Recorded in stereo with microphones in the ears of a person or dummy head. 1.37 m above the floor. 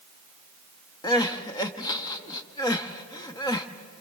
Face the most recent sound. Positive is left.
turn(degrees=25)  # may be behind; listen again after turning